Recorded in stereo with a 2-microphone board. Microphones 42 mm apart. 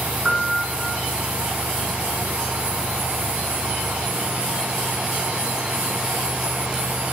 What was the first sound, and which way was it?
A piano, 25° right (ahead or behind).